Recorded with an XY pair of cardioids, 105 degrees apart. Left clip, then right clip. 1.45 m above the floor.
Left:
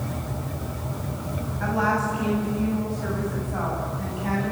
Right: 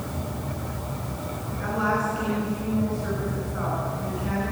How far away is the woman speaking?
About 9 m.